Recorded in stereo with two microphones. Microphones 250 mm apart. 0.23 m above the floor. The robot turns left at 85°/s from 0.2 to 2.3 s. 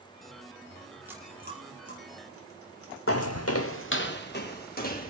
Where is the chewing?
5° right (ahead or behind), 3.5 m; by 3.9 s 65° right (ahead or behind), 3.5 m.